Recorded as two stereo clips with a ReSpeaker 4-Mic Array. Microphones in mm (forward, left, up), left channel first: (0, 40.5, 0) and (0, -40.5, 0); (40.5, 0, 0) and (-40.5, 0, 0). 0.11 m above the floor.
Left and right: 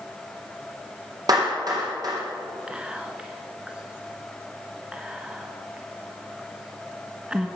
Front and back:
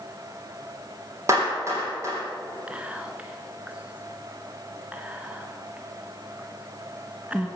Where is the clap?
130° right, 3.5 m.